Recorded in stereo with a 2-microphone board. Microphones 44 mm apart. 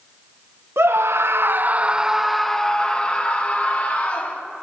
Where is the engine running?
I don't hear an engine running.